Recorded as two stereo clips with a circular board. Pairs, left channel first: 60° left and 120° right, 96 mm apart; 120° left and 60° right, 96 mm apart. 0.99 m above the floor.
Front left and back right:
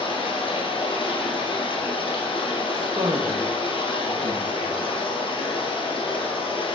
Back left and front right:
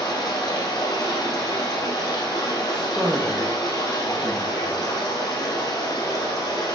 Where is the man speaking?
155° right, 0.9 m.